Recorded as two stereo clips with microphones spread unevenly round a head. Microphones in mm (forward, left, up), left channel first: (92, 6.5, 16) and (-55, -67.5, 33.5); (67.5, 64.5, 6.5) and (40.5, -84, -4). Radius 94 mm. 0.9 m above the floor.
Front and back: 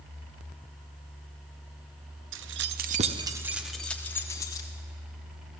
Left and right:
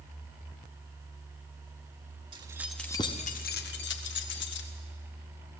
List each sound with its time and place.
2.3 s keys jangling: 165° right, 0.9 m; by 4.7 s 100° left, 1.8 m